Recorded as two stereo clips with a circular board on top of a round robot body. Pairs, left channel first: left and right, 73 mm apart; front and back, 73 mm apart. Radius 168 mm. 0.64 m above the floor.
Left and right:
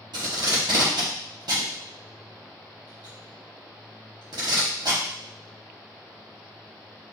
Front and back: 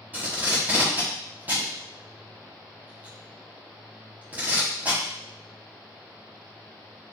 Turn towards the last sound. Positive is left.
turn(degrees=-115)